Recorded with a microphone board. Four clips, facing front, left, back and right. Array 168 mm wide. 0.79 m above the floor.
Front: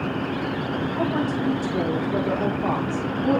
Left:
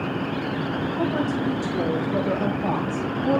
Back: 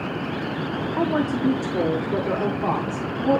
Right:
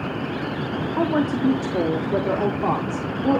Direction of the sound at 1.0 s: 130° right.